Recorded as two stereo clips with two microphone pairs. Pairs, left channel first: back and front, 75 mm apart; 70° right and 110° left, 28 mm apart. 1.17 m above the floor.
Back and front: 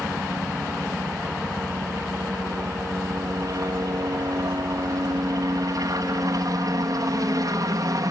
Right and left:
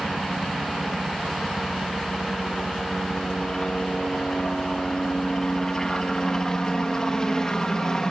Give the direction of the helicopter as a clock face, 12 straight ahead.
12 o'clock.